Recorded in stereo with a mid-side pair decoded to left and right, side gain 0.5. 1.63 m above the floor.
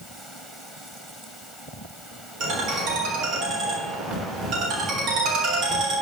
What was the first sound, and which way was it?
A ringtone, 70° right.